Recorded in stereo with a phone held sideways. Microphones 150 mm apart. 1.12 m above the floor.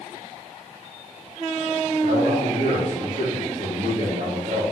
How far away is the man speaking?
About 2.5 m.